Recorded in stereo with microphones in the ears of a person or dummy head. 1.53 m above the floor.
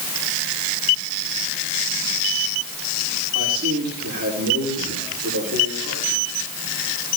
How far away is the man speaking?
About 6 m.